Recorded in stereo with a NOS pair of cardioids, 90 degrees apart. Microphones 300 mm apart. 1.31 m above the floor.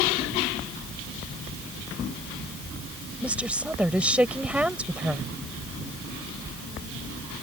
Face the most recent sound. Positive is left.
turn(degrees=-5)